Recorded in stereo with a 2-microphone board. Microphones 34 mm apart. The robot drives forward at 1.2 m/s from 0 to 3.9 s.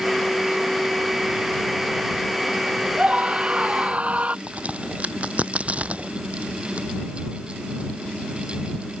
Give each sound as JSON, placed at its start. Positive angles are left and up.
{"t": 3.0, "sound": "a scream", "side_deg": -35}
{"t": 4.5, "sound": "a crack", "side_deg": -45}